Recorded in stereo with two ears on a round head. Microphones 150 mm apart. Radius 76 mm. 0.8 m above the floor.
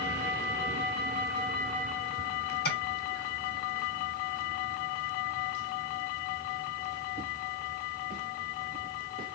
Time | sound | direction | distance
2.6 | tapping | 65° left (ahead or behind) | 3 m